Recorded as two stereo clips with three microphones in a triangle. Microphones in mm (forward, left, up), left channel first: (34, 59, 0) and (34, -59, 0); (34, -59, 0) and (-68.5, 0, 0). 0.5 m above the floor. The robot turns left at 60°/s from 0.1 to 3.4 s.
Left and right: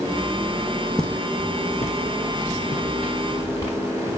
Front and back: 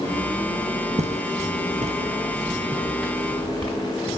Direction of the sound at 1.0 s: 175° left.